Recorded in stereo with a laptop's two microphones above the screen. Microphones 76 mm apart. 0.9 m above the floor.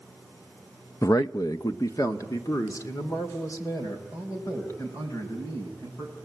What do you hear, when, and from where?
1.0 s a man speaking: 45° left (ahead or behind), 0.5 m